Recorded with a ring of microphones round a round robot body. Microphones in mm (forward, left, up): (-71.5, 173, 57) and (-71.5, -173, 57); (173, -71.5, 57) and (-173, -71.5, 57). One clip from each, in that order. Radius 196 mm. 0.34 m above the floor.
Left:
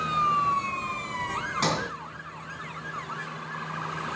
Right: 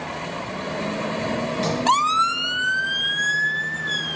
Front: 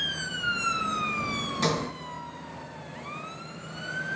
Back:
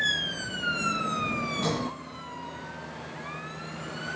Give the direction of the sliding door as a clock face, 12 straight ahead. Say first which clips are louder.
Left 2 dB, front 6 dB; 10 o'clock.